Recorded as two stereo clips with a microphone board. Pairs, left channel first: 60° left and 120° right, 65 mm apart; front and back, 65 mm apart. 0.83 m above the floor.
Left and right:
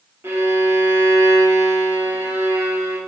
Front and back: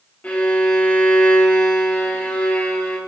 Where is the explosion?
I don't hear an explosion.